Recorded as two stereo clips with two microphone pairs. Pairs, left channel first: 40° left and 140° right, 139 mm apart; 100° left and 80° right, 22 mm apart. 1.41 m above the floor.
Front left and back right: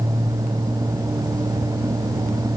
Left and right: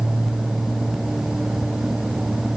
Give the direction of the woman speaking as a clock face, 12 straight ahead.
I don't hear a woman speaking.